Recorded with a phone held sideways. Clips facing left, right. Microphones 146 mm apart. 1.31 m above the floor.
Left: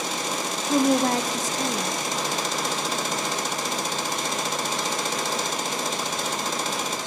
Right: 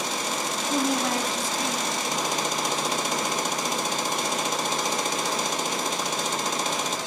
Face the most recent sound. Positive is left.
turn(degrees=45)  # may be behind; listen again after turning